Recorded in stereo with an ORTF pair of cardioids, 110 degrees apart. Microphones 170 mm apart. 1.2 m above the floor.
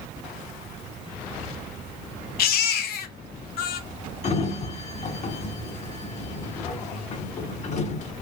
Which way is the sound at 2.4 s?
65° left.